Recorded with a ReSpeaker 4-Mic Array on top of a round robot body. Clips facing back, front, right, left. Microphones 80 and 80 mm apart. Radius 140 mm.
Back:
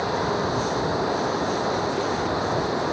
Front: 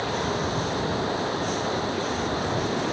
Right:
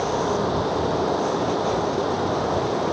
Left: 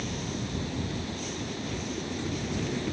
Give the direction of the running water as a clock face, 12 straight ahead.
4 o'clock.